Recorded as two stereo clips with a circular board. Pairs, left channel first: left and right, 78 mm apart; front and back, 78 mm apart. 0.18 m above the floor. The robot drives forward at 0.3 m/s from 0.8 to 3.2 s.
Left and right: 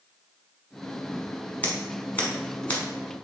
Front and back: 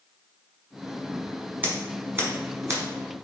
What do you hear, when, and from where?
1.6 s scissors: 135° left, 1.1 m; by 2.8 s 150° left, 1.2 m